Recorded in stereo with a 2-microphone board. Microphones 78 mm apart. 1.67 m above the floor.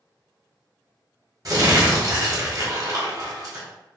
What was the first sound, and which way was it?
Crumpling, 50° right (ahead or behind).